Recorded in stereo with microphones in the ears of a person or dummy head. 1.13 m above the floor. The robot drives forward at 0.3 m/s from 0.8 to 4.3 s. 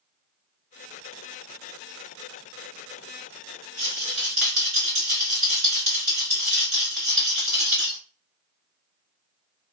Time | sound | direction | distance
3.8 | a rattle | 50° right (ahead or behind) | 1.5 m